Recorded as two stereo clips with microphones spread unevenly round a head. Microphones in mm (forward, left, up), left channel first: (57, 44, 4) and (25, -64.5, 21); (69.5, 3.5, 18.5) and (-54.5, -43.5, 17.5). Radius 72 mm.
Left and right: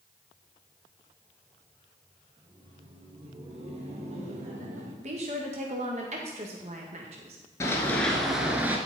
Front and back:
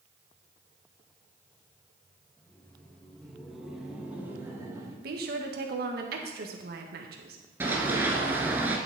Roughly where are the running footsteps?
Behind left.